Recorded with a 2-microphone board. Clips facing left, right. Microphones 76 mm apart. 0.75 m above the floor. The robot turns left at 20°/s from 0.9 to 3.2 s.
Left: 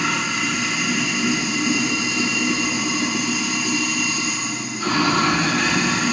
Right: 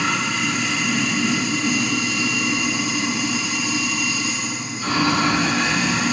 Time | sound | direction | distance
0.0 | running water | 175° left | 4 m